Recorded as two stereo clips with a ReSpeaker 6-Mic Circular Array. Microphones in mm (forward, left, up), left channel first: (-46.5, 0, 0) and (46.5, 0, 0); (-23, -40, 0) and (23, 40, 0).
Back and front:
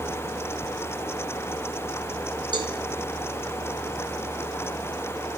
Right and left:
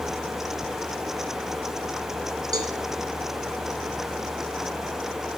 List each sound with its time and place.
2.5 s a cowbell: 20° left, 0.7 m